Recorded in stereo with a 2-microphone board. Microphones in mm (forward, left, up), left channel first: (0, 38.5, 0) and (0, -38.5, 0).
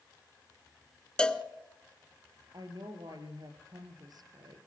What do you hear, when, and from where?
1.2 s a cowbell: 10° left (ahead or behind), 0.9 m
2.5 s a woman speaking: 65° right (ahead or behind), 2.5 m